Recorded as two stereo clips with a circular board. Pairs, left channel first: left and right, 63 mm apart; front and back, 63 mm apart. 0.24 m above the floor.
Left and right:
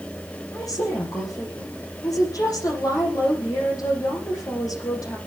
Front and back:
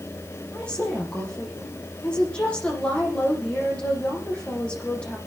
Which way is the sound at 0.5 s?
70° left.